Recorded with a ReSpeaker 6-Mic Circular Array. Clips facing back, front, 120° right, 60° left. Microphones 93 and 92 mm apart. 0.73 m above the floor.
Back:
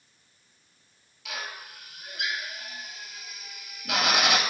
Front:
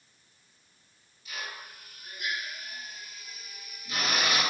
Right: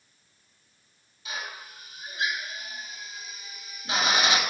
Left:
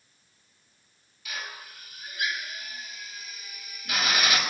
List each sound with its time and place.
1.2 s a drill: 175° left, 5.5 m